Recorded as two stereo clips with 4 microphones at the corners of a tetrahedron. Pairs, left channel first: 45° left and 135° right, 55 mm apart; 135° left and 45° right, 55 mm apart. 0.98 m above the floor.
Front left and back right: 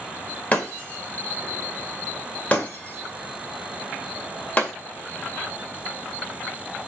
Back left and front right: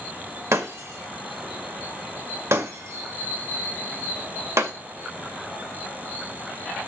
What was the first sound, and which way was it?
Breaking glass, 20° right.